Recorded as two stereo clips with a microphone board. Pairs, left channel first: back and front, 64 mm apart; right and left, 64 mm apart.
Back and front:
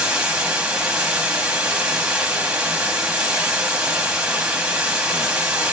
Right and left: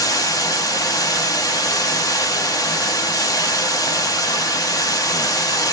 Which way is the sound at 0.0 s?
75° right.